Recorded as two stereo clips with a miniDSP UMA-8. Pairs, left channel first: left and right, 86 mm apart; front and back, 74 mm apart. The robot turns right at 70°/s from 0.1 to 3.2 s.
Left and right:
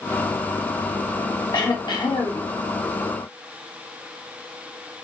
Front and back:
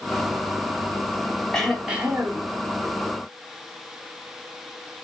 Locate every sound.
1.5 s throat clearing: 75° left, 1.0 m; by 2.5 s 145° left, 1.0 m